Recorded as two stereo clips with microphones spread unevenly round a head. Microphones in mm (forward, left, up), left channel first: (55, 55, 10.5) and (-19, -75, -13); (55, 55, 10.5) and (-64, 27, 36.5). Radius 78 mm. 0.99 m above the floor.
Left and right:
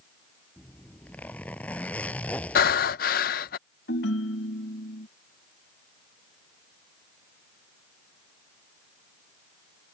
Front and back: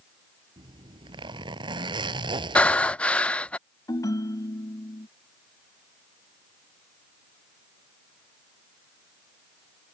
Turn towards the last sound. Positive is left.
turn(degrees=80)